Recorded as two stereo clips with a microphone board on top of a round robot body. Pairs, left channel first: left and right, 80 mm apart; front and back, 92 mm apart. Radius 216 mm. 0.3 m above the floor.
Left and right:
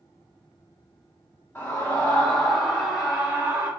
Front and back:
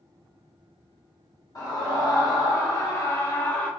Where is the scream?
25° left, 1.7 m; by 3.7 s 55° right, 1.3 m.